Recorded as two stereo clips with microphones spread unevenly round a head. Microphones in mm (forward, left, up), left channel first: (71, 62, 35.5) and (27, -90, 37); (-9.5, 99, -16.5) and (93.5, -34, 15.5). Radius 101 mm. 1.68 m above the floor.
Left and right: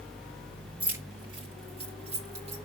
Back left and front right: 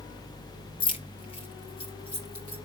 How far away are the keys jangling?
About 0.8 m.